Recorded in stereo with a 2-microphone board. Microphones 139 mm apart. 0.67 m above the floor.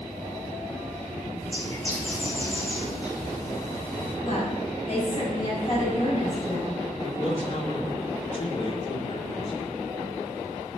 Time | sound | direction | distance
1.4 | a bird | 30° left (ahead or behind) | 4.5 m
4.2 | a woman speaking | 50° left (ahead or behind) | 5.5 m
7.0 | a man speaking | 40° left (ahead or behind) | 2 m